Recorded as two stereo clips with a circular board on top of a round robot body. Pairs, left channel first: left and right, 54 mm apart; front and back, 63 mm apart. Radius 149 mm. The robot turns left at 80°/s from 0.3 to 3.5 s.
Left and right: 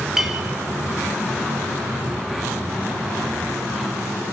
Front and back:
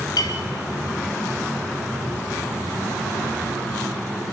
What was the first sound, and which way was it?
A clink, 10° right.